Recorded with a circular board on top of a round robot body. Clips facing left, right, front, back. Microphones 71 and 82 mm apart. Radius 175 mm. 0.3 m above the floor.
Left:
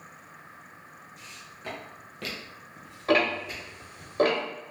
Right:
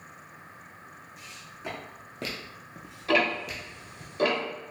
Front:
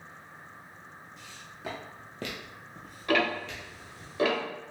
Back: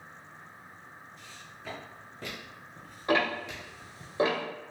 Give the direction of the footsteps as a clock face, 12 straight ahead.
12 o'clock.